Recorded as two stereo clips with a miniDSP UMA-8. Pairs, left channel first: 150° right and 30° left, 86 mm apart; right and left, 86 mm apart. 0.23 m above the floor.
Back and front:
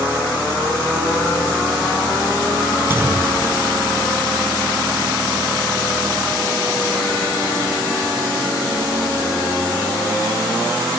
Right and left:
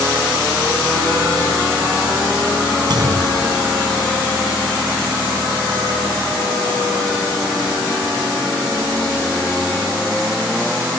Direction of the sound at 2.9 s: 85° left.